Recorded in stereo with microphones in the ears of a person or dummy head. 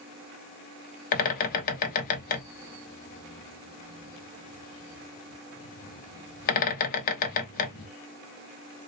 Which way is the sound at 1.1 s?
45° left (ahead or behind).